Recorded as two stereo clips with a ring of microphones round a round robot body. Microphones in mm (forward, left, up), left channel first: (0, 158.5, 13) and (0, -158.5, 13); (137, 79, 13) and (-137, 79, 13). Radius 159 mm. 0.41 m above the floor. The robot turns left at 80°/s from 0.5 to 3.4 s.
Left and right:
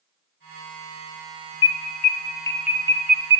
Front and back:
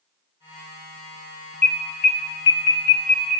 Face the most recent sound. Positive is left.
turn(degrees=-65)